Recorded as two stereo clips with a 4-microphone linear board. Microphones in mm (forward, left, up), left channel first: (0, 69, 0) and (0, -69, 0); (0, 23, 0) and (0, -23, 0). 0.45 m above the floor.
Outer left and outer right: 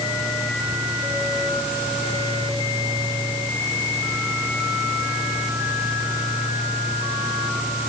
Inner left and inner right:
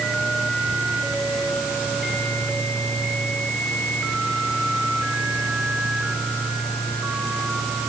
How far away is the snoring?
No snoring in this recording.